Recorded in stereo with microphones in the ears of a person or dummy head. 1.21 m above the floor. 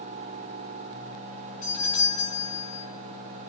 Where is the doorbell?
40° left (ahead or behind), 2.5 m.